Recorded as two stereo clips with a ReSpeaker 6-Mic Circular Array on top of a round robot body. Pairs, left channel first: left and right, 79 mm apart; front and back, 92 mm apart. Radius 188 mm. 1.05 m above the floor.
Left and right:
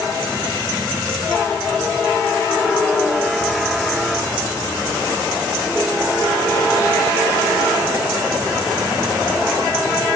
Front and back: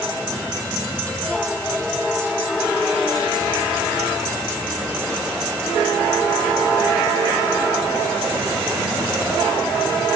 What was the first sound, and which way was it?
Only background noise.